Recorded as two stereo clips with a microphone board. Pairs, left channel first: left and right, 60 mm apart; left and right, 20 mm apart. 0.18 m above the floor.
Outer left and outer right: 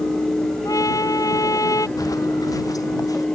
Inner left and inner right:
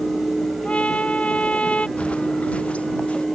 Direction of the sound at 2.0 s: 75° left (ahead or behind).